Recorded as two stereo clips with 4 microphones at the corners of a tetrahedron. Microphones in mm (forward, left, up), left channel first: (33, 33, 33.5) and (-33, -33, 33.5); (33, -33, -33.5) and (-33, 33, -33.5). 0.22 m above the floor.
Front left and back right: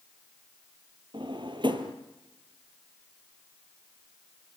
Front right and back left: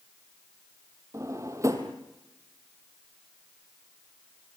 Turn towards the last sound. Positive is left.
turn(degrees=-170)